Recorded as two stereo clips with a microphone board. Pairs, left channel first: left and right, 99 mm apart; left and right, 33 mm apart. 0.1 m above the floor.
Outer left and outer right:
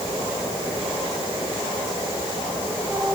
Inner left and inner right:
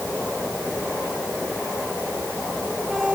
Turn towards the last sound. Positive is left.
No sound to turn to.